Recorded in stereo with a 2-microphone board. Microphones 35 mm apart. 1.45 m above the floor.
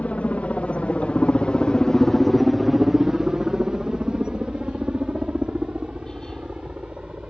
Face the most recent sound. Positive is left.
turn(degrees=-35)  # may be behind; listen again after turning